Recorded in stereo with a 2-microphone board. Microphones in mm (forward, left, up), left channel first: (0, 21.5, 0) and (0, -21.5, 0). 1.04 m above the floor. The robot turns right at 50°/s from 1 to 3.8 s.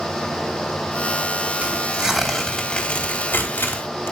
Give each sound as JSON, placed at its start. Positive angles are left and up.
{"t": 1.6, "sound": "tearing paper", "side_deg": -35, "distance_m": 3.0}